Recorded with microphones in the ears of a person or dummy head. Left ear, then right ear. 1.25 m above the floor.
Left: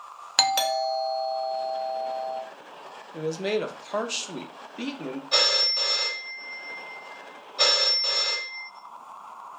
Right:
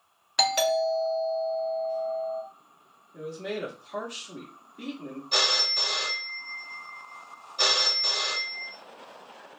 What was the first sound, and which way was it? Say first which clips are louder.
A doorbell: left 1 dB; 20° left (ahead or behind).